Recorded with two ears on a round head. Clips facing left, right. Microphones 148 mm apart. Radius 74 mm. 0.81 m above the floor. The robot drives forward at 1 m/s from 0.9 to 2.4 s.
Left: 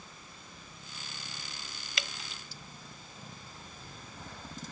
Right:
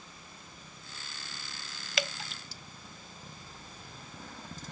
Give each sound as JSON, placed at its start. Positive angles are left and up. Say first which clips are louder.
{"t": 2.0, "sound": "dripping", "louder": "right 8 dB", "side_deg": -65}